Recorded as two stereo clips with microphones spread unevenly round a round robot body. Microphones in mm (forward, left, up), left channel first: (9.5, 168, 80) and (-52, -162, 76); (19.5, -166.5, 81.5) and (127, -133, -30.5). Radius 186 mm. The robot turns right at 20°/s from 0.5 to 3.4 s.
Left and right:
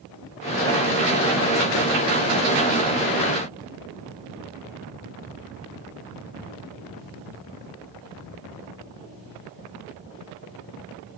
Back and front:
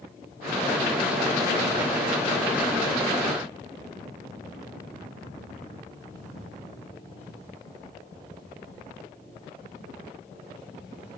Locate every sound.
Only background noise.